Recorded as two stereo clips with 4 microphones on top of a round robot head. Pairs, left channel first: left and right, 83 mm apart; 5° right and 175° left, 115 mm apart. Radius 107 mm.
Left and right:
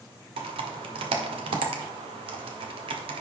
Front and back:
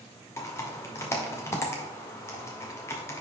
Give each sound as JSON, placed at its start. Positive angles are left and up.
{"t": 0.4, "sound": "typing on a keyboard", "azimuth_deg": -75, "distance_m": 0.7}